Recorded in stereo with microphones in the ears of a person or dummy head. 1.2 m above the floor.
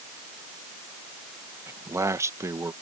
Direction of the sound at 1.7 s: 15° right (ahead or behind).